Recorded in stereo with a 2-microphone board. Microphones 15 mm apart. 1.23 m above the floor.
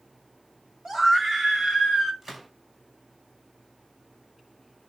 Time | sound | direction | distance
0.8 | a scream | 35° right (ahead or behind) | 3 m
2.2 | a gunshot | 30° right (ahead or behind) | 5 m